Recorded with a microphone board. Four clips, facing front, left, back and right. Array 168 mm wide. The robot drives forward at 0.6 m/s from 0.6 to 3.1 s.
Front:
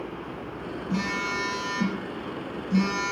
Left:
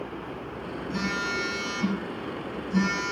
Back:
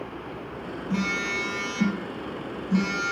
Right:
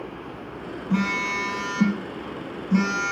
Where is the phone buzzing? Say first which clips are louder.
Right 5 dB, back 1 dB; 100° right, 5.5 m; by 3.1 s 110° right, 6 m.